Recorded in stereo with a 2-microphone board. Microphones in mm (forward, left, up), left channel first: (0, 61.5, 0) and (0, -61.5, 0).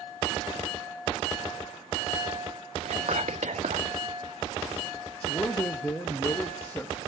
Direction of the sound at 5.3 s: 15° left (ahead or behind).